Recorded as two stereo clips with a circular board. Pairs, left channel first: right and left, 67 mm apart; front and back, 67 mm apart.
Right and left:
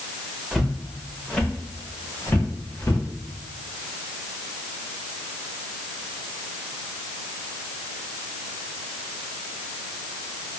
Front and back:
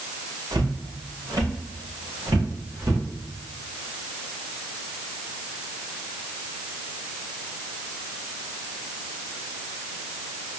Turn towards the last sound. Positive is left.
turn(degrees=-140)